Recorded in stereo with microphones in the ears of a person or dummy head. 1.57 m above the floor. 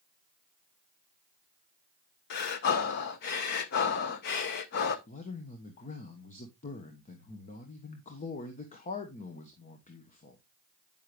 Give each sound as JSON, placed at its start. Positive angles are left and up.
{"t": 2.3, "sound": "breathing", "side_deg": 60, "distance_m": 0.9}
{"t": 5.1, "sound": "a man speaking", "side_deg": 40, "distance_m": 1.1}